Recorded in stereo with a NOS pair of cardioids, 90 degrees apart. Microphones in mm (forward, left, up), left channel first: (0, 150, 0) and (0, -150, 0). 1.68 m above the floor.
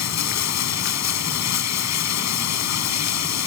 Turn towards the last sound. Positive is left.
turn(degrees=70)